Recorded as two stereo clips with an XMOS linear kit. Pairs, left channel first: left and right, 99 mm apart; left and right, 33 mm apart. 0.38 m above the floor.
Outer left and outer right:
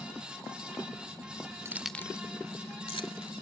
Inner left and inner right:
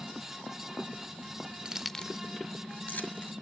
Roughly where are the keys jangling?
Right.